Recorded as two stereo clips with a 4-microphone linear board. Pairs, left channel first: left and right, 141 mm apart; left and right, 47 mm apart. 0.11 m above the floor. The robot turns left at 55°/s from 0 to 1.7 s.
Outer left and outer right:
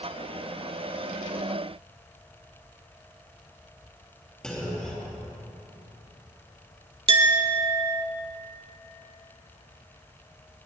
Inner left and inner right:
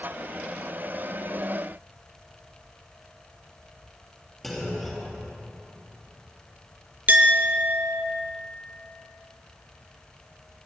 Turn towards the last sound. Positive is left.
turn(degrees=-40)  # may be behind; listen again after turning